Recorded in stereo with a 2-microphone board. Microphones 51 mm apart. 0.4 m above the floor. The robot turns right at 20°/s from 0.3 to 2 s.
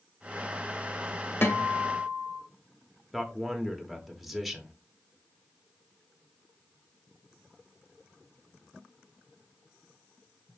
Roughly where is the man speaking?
Centre.